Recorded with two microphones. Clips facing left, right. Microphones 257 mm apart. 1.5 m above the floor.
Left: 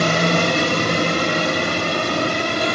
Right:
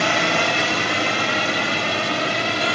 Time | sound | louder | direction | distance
0.0 | a drone | left 4 dB | 45° left (ahead or behind) | ?